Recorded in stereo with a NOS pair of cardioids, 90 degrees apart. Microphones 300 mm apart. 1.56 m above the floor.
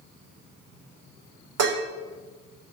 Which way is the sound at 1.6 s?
60° right.